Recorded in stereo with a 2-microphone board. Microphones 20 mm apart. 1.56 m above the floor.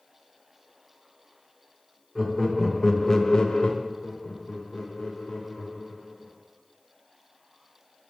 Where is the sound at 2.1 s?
10° right (ahead or behind), 1.0 m; by 3.7 s 65° left (ahead or behind), 0.5 m.